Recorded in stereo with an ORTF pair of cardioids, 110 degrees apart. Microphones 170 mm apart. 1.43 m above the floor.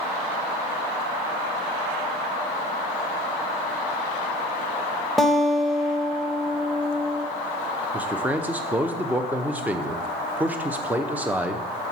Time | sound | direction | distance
5.2 | a guitar | straight ahead | 1.2 m
7.9 | a man speaking | 10° right | 0.9 m